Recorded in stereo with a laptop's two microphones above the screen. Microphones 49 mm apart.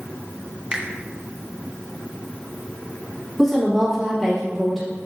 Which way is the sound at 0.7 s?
25° right (ahead or behind).